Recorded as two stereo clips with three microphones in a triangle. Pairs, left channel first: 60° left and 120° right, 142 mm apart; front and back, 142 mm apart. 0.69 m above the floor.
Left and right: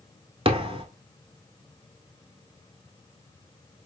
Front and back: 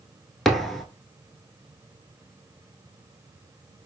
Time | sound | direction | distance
0.5 | a thud | 85° right | 0.8 m